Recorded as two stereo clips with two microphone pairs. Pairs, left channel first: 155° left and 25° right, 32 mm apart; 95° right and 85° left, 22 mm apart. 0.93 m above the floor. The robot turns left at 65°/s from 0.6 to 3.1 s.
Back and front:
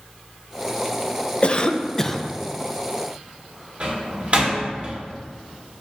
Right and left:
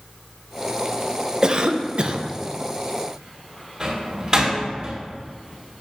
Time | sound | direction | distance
1.4 | a cough | 125° left | 0.6 m
3.8 | a door slam | 20° left | 2 m